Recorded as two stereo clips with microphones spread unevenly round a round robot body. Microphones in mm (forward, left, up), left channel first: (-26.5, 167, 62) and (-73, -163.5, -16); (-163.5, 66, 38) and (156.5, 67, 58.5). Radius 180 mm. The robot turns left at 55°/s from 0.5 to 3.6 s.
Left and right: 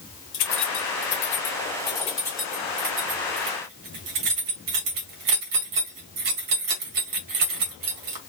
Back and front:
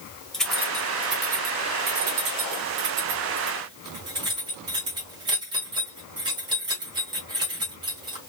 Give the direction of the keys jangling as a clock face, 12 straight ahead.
9 o'clock.